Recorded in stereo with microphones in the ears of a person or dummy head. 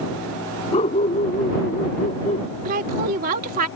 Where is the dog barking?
35° left (ahead or behind); by 2.5 s 40° left (ahead or behind).